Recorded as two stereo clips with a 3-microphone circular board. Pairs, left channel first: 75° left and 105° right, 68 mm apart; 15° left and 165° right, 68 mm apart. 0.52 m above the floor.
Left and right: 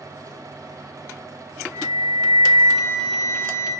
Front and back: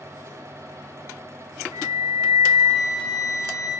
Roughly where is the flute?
Behind.